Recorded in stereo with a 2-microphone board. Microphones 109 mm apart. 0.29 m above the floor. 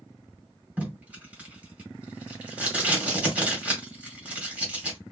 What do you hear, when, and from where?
0.8 s tape being pulled: 15° right (ahead or behind), 1.9 m